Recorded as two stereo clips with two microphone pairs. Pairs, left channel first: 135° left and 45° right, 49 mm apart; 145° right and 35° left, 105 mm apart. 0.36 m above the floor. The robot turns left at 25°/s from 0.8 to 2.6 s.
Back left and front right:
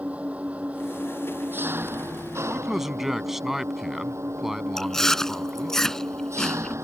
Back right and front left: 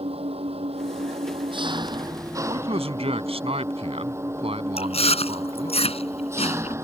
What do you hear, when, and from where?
0.0 s an engine running: 15° left; by 6.8 s 30° right
2.5 s a man speaking: 40° left
4.8 s chewing: 145° right